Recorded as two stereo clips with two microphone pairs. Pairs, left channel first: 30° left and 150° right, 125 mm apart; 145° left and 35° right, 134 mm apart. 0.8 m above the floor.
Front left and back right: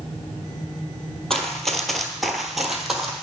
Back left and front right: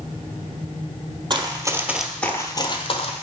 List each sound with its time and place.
1.3 s running footsteps: 60° right, 1.0 m; by 3.2 s 120° left, 1.3 m